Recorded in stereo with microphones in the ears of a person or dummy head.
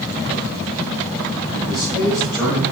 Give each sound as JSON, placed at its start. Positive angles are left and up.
{"t": 1.7, "sound": "a man speaking", "side_deg": 15, "distance_m": 7.5}